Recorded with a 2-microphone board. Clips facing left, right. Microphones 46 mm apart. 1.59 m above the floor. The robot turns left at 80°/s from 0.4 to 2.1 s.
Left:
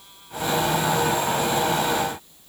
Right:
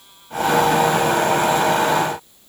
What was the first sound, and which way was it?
Only background noise.